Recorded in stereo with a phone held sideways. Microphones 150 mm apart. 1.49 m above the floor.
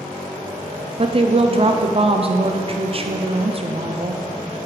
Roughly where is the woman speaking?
Right.